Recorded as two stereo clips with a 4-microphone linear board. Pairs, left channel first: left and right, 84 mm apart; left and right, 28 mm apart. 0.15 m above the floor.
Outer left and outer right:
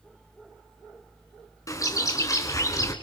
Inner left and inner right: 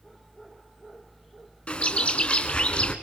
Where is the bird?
40° left (ahead or behind), 2 m.